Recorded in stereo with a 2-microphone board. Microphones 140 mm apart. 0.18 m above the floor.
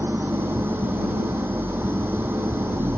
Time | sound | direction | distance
0.0 | an engine running | 15° right (ahead or behind) | ?